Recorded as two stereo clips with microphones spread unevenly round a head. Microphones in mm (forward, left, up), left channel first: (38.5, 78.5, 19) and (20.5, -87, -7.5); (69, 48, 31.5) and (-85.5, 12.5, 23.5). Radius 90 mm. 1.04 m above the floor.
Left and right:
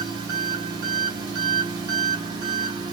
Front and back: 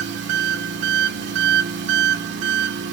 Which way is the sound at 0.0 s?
165° right.